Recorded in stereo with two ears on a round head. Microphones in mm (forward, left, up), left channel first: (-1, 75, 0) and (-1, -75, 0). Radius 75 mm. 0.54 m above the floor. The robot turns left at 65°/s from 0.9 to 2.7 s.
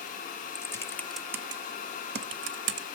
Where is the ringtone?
No ringtone in this recording.